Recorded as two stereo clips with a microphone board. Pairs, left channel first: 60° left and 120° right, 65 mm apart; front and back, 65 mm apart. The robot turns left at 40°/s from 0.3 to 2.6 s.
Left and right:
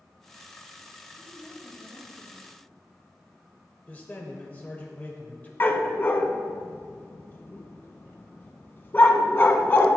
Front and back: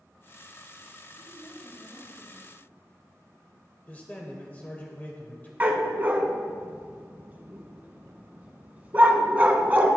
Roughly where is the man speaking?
Ahead left.